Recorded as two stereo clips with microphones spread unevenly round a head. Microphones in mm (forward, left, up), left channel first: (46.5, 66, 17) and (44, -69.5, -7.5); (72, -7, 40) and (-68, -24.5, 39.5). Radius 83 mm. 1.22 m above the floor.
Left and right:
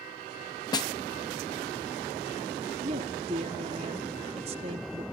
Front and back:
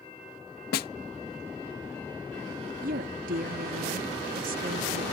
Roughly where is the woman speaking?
Behind right.